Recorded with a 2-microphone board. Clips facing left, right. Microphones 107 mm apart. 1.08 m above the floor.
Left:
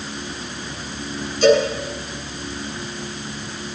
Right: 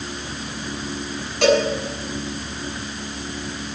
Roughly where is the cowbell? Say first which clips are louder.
Left 2 dB; right.